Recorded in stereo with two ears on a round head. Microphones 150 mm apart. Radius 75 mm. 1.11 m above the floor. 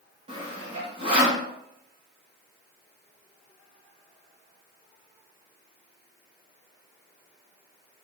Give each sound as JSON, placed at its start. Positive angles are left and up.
{"t": 0.3, "sound": "sawing", "side_deg": -35, "distance_m": 0.7}